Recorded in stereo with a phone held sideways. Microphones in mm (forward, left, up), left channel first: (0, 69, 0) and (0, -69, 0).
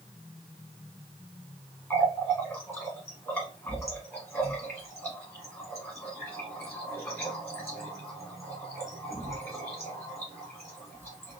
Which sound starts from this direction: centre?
A running tap, at 1.9 s.